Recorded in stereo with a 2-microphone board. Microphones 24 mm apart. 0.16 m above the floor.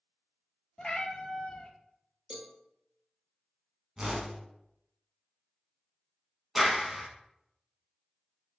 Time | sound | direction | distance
0.8 | a cat meowing | 35° left (ahead or behind) | 0.5 m
2.3 | a cowbell | 35° right (ahead or behind) | 0.8 m
4.0 | a whoosh | 30° right (ahead or behind) | 0.8 m
6.5 | a clap | 5° right (ahead or behind) | 0.9 m